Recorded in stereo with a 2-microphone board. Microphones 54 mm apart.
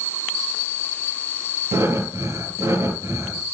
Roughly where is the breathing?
Right.